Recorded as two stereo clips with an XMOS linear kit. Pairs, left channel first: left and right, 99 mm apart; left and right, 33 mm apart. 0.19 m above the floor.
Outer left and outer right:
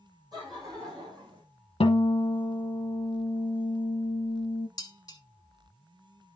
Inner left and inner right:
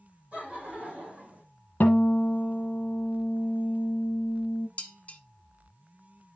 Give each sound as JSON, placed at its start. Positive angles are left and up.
{"t": 0.3, "sound": "laughter", "side_deg": -50, "distance_m": 7.0}
{"t": 1.8, "sound": "a guitar", "side_deg": 75, "distance_m": 1.2}
{"t": 4.8, "sound": "dishes clattering", "side_deg": 40, "distance_m": 1.1}